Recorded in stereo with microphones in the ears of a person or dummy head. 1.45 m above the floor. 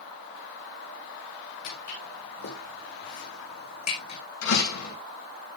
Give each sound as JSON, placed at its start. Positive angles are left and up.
{"t": 1.6, "sound": "footsteps", "side_deg": 70, "distance_m": 8.0}
{"t": 4.4, "sound": "a door slam", "side_deg": 80, "distance_m": 8.0}